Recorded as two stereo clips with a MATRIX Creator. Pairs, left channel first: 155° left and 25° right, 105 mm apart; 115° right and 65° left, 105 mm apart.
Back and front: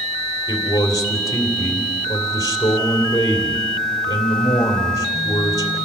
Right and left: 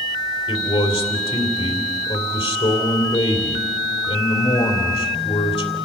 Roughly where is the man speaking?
Behind right.